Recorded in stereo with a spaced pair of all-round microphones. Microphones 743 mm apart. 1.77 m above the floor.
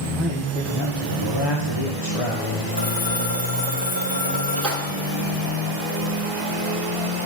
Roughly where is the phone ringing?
Left.